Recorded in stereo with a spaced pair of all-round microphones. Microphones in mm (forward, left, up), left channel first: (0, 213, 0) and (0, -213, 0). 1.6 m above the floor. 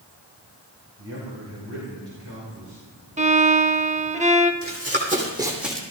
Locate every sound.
1.0 s a man speaking: 85° right, 4 m; by 2.8 s 75° right (ahead or behind), 4.5 m
3.2 s a violin: 15° right (ahead or behind), 0.5 m
4.6 s running footsteps: 30° right (ahead or behind), 3.5 m; by 5.8 s 5° left (ahead or behind), 3 m